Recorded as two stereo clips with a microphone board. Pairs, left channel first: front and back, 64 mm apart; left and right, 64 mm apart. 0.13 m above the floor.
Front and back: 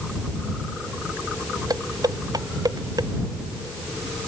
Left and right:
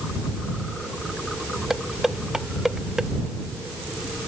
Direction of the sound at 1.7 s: 175° right.